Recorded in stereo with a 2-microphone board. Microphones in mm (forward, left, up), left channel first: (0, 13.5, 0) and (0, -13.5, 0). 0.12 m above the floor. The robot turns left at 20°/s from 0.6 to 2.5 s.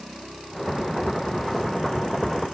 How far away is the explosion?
No explosion in this recording.